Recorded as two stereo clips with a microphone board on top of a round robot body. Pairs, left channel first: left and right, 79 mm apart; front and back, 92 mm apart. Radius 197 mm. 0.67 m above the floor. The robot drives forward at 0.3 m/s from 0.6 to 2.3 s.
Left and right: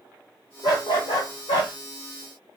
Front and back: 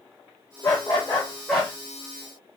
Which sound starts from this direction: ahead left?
A dog barking, at 0.6 s.